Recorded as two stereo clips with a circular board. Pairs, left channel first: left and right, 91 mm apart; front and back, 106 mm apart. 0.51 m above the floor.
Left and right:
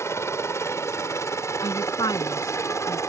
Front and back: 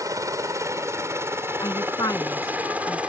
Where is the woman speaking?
50° left.